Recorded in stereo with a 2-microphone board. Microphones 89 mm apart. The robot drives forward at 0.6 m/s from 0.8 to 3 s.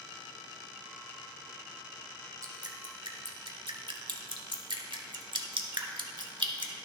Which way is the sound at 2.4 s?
45° right (ahead or behind).